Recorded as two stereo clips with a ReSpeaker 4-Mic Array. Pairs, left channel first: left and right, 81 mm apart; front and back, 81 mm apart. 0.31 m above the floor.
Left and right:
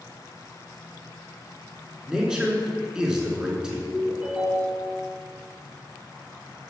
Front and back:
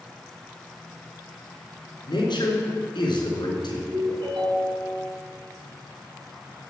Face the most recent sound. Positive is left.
turn(degrees=-170)